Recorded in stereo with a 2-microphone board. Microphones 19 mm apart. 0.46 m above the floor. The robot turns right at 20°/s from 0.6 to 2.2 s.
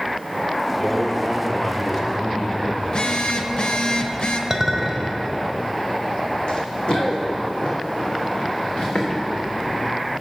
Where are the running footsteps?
65° left (ahead or behind), 1.6 m; by 9.1 s 80° left, 3 m.